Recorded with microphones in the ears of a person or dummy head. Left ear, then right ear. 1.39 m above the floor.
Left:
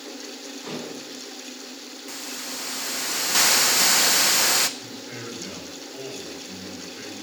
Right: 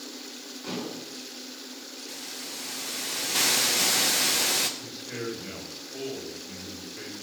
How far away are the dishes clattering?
About 9 m.